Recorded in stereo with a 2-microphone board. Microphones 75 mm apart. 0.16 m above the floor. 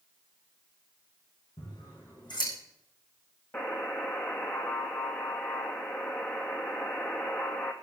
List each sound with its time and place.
1.6 s scissors: 80° left, 7 m
3.5 s a buzzer: 30° left (ahead or behind), 1.8 m